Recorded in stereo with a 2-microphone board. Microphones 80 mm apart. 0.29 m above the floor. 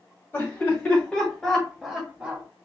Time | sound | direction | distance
0.3 | laughter | 30° left (ahead or behind) | 2.0 m